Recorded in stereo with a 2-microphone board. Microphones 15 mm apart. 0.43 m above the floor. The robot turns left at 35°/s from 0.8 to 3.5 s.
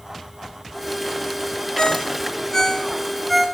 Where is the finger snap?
No finger snap in this recording.